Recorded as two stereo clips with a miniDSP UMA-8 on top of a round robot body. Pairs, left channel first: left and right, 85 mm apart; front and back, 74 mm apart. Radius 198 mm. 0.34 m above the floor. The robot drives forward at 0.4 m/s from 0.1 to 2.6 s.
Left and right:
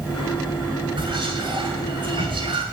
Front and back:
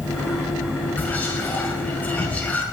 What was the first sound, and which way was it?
Whispering, 70° right.